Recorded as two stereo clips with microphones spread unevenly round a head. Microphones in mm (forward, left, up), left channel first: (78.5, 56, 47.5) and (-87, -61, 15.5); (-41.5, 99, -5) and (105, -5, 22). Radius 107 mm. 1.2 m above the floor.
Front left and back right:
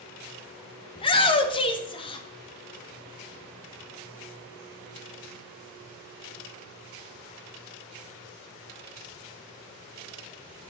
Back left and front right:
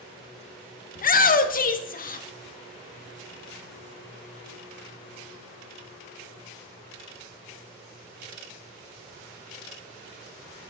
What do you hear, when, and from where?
0.9 s a shout: 100° left, 1.0 m